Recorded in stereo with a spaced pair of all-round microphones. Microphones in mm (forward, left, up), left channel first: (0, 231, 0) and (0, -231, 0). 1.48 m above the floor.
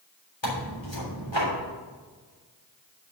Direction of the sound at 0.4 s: 80° left.